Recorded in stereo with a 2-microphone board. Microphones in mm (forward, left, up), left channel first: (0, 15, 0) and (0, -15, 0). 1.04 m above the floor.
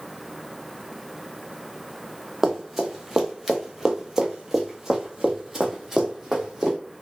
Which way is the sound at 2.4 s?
10° right (ahead or behind).